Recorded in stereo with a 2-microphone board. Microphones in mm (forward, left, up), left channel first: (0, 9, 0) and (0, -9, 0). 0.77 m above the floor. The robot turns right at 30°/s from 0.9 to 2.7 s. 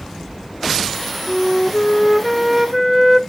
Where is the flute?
140° left, 0.6 m; by 3.2 s 175° right, 0.6 m.